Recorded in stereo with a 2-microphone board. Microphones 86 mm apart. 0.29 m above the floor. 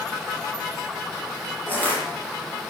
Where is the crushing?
20° left (ahead or behind), 4.5 m.